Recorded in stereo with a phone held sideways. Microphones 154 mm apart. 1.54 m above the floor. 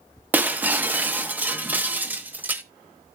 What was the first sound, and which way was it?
Breaking glass, 10° right (ahead or behind).